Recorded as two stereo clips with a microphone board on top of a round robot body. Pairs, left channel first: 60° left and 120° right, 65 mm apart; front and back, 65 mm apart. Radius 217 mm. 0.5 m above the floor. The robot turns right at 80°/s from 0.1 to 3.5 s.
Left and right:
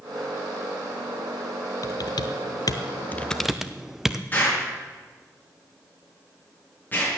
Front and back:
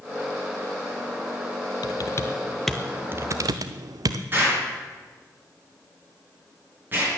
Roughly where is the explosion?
Behind left.